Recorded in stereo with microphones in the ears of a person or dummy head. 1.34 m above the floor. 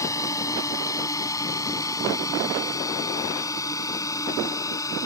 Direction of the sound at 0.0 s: 20° left (ahead or behind).